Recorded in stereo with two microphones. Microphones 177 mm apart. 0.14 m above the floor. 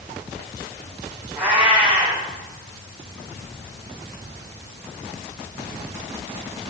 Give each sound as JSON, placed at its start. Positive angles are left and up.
{"t": 1.4, "sound": "a cat meowing", "side_deg": -10, "distance_m": 4.0}